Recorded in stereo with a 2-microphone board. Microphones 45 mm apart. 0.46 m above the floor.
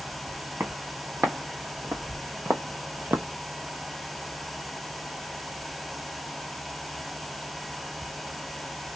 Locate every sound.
0.6 s footsteps: 60° right (ahead or behind), 1.9 m; by 3.2 s 50° right (ahead or behind), 0.7 m